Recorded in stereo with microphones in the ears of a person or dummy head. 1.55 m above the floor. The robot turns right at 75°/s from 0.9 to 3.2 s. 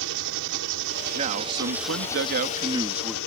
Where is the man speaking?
145° right; by 3.2 s 5° left.